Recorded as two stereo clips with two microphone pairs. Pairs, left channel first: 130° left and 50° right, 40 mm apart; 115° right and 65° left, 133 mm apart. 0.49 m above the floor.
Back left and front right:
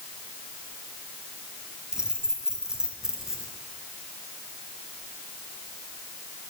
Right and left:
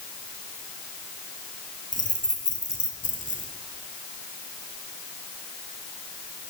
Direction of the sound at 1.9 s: 120° right.